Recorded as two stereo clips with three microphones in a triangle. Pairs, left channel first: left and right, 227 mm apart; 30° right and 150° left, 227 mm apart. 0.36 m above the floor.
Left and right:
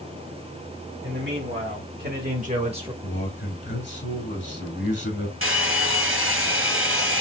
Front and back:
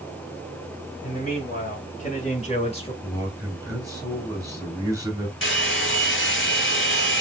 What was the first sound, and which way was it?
A man speaking, 75° right.